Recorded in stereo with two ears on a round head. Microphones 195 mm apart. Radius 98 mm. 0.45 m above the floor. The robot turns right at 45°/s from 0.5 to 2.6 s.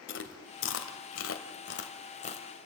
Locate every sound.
0.1 s chewing: 60° left (ahead or behind), 1.6 m; by 2.5 s 25° left (ahead or behind), 1.6 m